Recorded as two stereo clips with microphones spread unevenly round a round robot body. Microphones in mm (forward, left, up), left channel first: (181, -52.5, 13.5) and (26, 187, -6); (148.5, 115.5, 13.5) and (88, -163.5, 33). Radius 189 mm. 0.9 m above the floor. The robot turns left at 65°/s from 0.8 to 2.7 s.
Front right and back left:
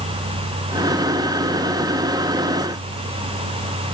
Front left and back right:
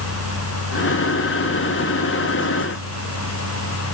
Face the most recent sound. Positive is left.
No sound to turn to.